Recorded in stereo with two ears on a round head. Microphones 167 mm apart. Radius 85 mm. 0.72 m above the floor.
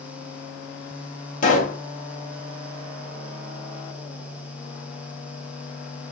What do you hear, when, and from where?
1.4 s a pop: 45° left (ahead or behind), 1.0 m